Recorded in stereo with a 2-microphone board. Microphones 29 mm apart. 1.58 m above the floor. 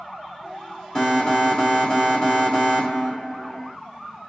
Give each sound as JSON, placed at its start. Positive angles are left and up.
{"t": 0.9, "sound": "an alarm", "side_deg": 25, "distance_m": 3.0}